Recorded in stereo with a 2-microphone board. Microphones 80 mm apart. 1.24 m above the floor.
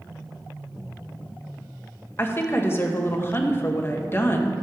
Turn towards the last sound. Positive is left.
turn(degrees=30)  # may be behind; listen again after turning